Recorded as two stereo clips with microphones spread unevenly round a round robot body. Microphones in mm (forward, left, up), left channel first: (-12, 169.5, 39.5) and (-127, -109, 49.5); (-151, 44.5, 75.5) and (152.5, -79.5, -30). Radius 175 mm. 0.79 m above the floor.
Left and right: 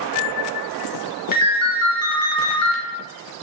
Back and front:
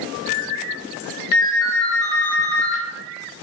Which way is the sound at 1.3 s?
125° left.